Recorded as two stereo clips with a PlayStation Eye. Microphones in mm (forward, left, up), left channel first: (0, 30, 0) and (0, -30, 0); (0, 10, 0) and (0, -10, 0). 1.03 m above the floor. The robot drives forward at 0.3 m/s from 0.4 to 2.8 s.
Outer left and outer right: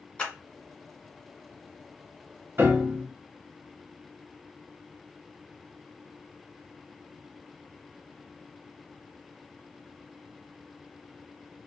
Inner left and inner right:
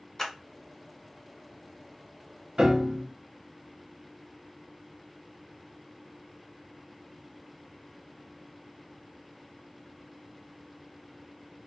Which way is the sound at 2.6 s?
45° right (ahead or behind).